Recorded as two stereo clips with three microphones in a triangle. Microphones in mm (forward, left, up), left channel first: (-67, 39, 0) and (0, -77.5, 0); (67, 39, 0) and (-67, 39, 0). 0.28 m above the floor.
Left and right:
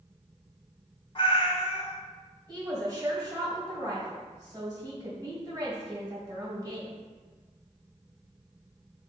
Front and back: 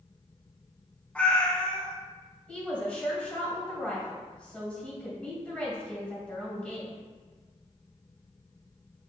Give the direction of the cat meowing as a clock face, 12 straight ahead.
9 o'clock.